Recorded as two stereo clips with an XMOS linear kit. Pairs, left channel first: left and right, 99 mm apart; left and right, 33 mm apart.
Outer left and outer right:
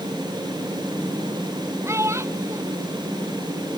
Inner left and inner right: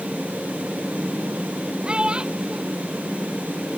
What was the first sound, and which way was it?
A child speaking, 30° right (ahead or behind).